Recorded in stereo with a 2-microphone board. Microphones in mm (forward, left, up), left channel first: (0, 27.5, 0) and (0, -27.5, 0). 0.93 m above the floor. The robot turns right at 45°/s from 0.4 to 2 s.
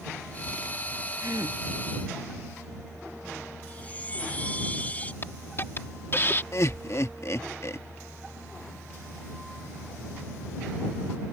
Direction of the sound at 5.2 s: 40° left (ahead or behind).